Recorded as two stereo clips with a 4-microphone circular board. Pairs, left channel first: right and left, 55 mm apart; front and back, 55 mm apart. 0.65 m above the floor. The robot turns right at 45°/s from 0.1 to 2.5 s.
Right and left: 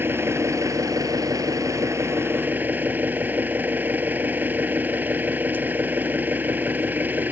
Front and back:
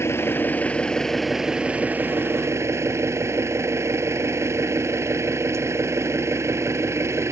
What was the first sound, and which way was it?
An engine running, 40° left.